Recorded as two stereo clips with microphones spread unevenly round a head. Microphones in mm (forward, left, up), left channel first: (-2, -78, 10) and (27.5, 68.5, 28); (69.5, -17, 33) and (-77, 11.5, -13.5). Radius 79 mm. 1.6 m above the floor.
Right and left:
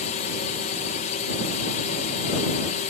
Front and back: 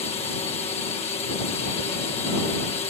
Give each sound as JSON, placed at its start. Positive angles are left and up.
{"t": 0.0, "sound": "a drone", "azimuth_deg": -70}